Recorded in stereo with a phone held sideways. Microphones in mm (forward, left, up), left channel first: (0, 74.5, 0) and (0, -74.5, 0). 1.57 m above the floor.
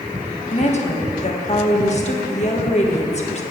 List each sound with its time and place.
0.5 s a woman speaking: 45° left (ahead or behind), 1.6 m